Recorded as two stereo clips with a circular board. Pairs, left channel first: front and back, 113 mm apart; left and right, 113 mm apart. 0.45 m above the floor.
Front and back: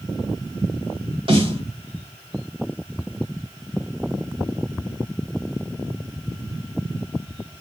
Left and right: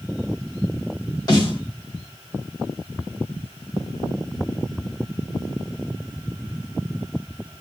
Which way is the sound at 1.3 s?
145° left.